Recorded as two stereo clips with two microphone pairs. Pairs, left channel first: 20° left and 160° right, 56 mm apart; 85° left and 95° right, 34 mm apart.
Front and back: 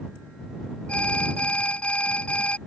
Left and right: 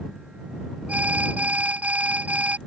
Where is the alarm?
50° right.